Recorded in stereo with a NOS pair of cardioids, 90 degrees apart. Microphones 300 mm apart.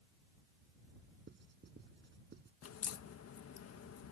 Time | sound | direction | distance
1.3 | writing | 35° right | ?
2.6 | a crack | 55° left | ?